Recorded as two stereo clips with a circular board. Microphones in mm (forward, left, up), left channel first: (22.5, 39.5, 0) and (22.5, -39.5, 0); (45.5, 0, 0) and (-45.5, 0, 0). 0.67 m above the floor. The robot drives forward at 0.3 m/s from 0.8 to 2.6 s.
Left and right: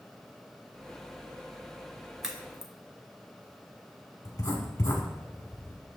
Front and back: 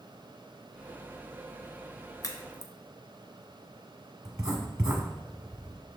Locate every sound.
2.2 s a crack: 10° right, 0.7 m
4.2 s writing: 130° left, 1.2 m